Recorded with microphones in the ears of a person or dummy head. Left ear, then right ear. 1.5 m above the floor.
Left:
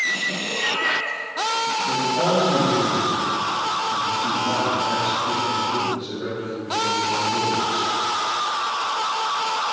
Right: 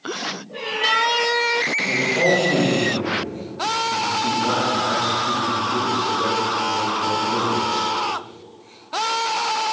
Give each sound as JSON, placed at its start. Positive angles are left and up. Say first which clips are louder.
{"t": 0.5, "sound": "a cat meowing", "louder": "right 3 dB", "side_deg": 55, "distance_m": 2.5}
{"t": 1.9, "sound": "a man speaking", "louder": "right 3 dB", "side_deg": -65, "distance_m": 3.5}